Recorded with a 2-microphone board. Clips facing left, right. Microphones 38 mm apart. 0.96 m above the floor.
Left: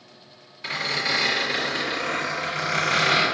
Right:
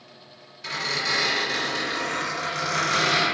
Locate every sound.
0.6 s a squeak: 20° left (ahead or behind), 1.9 m